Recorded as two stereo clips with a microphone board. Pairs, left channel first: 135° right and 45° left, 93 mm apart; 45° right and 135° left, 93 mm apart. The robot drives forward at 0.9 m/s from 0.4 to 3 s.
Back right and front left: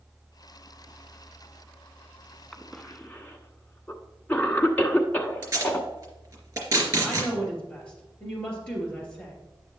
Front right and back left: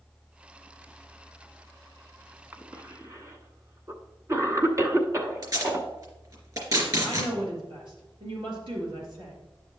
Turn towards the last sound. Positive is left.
turn(degrees=145)